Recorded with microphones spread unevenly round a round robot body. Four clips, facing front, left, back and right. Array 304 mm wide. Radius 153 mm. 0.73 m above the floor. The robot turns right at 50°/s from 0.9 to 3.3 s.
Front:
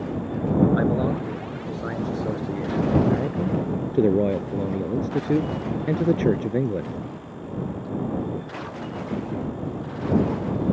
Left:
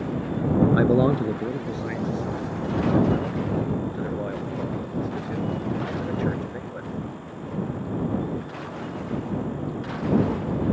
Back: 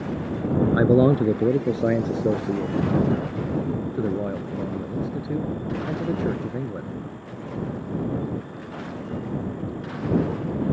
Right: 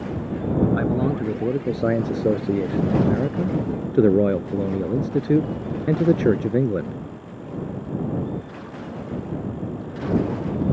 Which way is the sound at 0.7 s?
175° left.